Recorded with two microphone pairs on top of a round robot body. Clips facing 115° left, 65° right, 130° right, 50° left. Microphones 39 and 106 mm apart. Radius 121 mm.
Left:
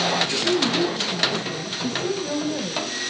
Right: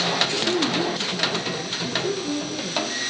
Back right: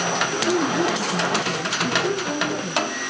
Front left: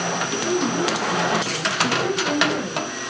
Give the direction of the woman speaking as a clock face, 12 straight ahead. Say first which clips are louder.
Left 1 dB, back right 1 dB; 8 o'clock.